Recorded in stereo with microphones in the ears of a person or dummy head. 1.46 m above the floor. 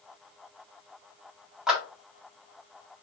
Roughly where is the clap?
Centre.